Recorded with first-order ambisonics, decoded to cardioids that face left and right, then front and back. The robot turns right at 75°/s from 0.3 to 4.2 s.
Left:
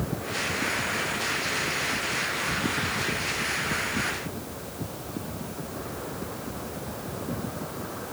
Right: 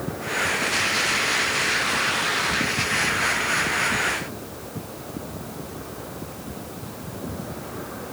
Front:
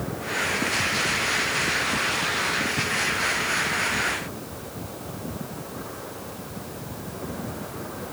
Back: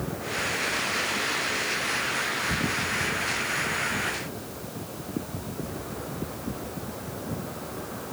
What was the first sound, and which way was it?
Only background noise.